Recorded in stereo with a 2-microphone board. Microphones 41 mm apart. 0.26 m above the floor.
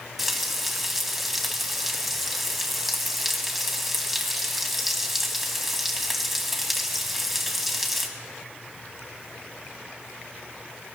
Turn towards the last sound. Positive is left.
turn(degrees=-5)  # may be behind; listen again after turning